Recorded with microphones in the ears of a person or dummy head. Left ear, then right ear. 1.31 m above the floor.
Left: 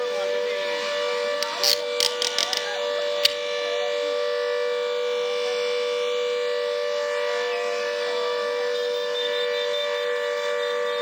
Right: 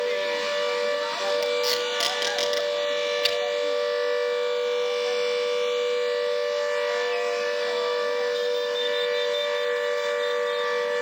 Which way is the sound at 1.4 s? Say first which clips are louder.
Left 1 dB; 35° left (ahead or behind).